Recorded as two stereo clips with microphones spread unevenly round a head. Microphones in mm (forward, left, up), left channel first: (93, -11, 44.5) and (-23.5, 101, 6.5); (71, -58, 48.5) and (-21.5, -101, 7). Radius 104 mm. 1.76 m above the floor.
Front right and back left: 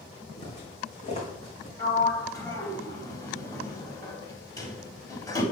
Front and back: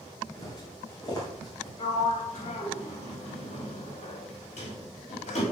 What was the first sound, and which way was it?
Footsteps, 10° right.